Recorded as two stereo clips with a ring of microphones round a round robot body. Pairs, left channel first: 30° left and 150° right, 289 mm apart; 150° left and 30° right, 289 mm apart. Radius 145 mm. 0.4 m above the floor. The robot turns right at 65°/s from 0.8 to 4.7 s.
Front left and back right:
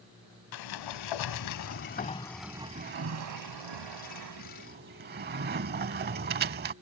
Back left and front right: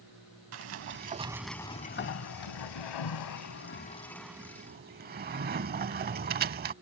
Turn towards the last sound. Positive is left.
turn(degrees=-90)